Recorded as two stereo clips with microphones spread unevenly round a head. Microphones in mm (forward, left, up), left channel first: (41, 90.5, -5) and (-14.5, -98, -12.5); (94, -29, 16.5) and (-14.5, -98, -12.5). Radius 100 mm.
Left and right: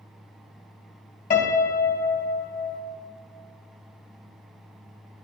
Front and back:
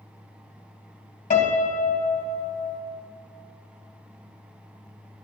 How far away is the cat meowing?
No cat meowing in this recording.